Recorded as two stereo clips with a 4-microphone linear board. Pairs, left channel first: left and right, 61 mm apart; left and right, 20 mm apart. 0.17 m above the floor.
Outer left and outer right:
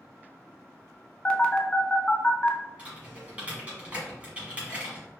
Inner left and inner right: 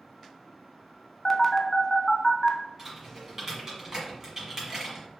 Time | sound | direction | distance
1.2 | a phone buzzing | 20° left (ahead or behind) | 0.5 m
2.8 | typing on a keyboard | 20° right (ahead or behind) | 1.7 m